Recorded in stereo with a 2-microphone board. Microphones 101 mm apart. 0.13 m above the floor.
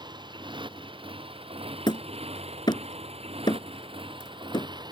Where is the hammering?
50° left (ahead or behind).